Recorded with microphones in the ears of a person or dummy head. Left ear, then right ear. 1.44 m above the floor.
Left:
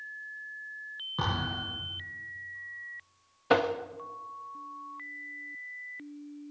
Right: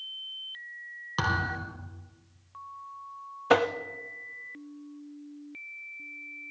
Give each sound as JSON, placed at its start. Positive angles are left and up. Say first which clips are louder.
{"t": 1.2, "sound": "a thud", "louder": "right 4 dB", "side_deg": -75, "distance_m": 5.0}
{"t": 3.5, "sound": "tapping", "louder": "right 2 dB", "side_deg": -15, "distance_m": 0.6}